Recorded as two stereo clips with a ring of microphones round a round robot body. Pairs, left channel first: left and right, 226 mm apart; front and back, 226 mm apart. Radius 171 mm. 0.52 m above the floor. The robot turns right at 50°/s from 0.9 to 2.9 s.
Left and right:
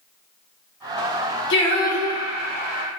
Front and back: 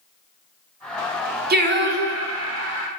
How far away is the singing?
About 0.8 m.